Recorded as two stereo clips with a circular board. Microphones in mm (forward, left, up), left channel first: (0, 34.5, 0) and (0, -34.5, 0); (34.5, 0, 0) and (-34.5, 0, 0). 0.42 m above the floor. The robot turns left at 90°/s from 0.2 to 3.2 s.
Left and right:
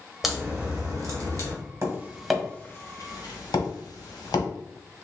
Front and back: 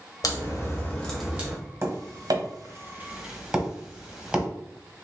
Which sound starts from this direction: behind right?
Tapping, at 1.8 s.